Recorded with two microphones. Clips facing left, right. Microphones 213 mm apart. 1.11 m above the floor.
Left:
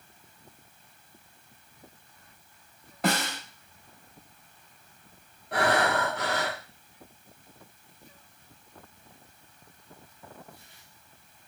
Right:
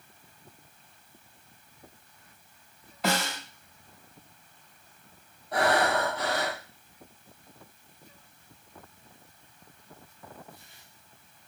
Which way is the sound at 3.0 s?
55° left (ahead or behind).